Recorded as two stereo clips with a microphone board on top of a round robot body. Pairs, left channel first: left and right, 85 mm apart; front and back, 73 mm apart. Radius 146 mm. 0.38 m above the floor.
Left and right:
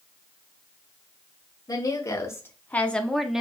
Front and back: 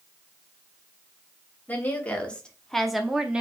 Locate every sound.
1.7 s a woman speaking: 60° left, 1.2 m; by 3.4 s 150° right, 0.9 m